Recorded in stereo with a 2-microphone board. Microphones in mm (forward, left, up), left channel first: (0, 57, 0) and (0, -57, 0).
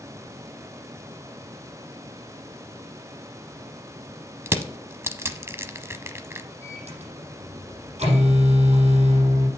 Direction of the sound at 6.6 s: 70° right (ahead or behind).